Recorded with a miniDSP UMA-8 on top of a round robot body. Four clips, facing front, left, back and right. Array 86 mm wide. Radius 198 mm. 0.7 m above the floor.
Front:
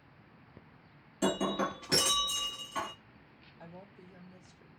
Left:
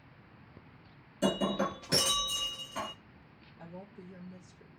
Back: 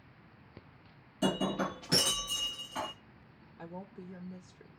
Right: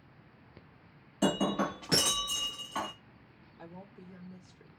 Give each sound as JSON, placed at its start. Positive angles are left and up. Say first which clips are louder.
{"t": 1.2, "sound": "breaking glass", "louder": "right 1 dB, front 1 dB", "azimuth_deg": -85, "distance_m": 0.7}
{"t": 3.6, "sound": "a woman speaking", "louder": "left 1 dB, back 6 dB", "azimuth_deg": -165, "distance_m": 0.9}